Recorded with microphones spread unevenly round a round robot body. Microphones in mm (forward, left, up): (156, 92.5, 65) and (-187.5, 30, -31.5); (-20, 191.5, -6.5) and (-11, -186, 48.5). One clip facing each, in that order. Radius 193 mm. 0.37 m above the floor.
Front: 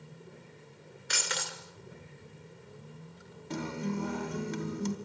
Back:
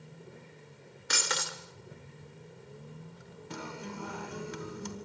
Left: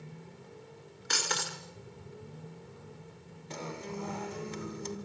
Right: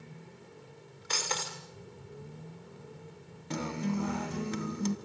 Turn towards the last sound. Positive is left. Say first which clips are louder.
# front 8 dB, right 7 dB
turn(degrees=-55)